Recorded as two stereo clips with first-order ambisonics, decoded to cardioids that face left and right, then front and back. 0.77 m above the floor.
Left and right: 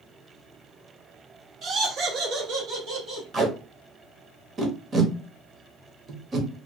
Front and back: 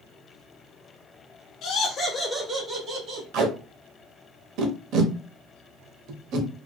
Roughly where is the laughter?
Ahead right.